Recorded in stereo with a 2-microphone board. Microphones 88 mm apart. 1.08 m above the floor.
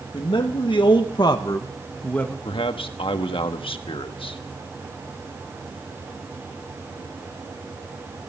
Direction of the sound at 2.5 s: 75° left (ahead or behind).